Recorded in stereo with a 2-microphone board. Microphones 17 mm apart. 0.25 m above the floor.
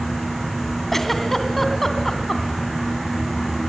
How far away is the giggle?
About 2.5 m.